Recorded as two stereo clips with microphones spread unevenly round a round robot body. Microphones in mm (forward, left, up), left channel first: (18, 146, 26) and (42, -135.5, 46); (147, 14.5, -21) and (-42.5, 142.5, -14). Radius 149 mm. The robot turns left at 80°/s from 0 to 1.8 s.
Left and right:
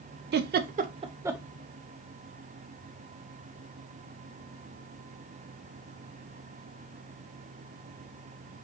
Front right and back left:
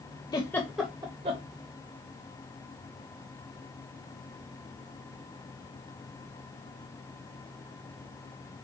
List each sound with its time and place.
0.3 s a giggle: 85° right, 0.5 m; by 1.4 s 175° right, 0.5 m